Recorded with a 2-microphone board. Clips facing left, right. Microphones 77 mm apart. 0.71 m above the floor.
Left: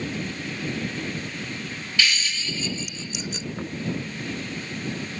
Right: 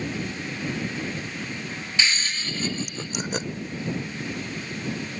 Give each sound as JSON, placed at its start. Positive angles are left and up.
{"t": 2.0, "sound": "laughter", "side_deg": -25}
{"t": 3.5, "sound": "knocking", "side_deg": 80}